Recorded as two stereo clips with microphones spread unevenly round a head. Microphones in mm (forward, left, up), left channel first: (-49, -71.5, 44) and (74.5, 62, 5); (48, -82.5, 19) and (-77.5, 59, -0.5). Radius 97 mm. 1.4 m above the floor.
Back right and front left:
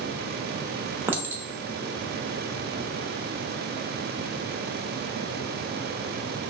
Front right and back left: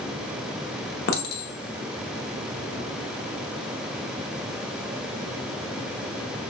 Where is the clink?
40° right, 0.8 m.